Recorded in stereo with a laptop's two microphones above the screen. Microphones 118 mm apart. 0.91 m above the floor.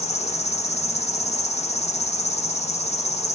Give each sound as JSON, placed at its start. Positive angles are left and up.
{"t": 0.0, "sound": "an insect", "side_deg": 65, "distance_m": 0.7}